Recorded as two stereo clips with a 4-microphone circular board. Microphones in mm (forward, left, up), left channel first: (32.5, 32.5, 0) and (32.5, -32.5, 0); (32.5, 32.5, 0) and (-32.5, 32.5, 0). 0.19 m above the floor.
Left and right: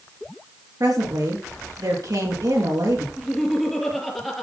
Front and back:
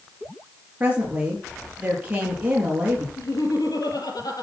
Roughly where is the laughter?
Ahead.